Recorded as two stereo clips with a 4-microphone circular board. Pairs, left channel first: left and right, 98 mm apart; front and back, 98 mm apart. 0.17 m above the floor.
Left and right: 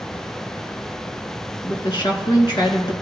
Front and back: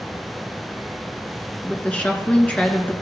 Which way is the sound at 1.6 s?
70° left.